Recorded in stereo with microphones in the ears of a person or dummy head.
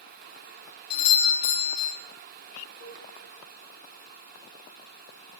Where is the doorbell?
50° left (ahead or behind), 1.5 m.